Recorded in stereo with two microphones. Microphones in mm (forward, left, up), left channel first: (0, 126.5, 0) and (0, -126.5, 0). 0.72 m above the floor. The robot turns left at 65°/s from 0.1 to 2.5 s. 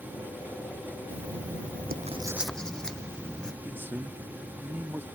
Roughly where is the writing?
Right.